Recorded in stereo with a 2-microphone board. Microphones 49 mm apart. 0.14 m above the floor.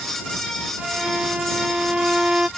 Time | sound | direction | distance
0.8 | a violin | 20° right (ahead or behind) | ?